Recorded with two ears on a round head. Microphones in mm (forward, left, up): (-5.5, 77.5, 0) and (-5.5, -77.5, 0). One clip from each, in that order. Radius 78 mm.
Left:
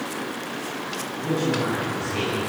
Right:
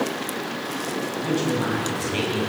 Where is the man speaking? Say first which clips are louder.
Left 1 dB; 40° right (ahead or behind), 9.5 m.